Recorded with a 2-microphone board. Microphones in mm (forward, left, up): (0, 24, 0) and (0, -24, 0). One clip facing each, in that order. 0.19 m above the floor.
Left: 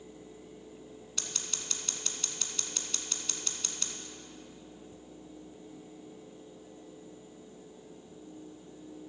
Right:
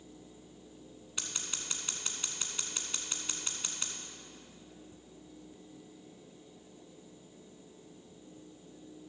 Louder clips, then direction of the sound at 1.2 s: Right 1 dB; 20° right (ahead or behind).